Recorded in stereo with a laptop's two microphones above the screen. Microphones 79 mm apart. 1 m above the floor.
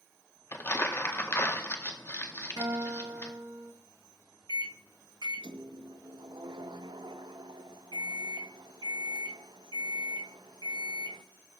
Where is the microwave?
70° right (ahead or behind), 0.6 m.